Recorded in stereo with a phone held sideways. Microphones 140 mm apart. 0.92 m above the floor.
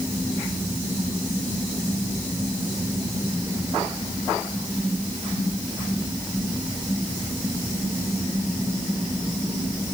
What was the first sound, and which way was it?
Only background noise.